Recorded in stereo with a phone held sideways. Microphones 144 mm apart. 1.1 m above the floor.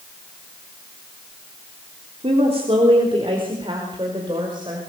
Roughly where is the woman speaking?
Right.